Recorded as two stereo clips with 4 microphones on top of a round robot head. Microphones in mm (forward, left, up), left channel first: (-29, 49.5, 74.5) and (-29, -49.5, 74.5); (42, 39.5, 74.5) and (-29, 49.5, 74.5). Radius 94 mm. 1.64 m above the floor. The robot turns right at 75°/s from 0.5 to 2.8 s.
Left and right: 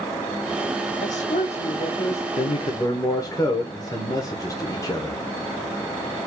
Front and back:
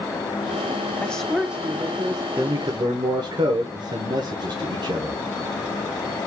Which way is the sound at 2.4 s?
115° left.